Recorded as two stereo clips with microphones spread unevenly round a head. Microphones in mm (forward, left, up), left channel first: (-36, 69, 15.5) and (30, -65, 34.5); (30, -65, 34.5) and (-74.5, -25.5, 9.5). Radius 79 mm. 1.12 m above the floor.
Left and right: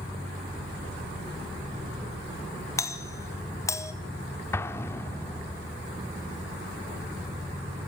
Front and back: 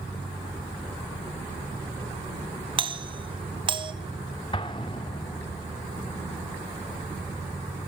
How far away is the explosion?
About 1.3 m.